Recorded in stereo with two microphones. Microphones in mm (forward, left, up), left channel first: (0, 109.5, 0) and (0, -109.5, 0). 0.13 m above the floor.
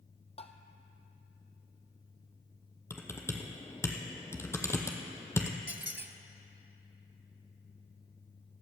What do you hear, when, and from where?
0.4 s tapping: 30° left (ahead or behind), 0.9 m
2.9 s typing on a keyboard: 10° left (ahead or behind), 1.5 m
5.7 s a squeak: 55° right (ahead or behind), 0.8 m